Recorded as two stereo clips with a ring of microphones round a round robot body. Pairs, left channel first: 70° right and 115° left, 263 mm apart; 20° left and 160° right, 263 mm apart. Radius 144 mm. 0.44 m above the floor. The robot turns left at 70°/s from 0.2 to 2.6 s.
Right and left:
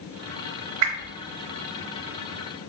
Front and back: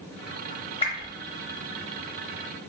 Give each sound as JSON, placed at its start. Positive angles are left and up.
{"t": 0.8, "sound": "a whoosh", "azimuth_deg": 90, "distance_m": 0.9}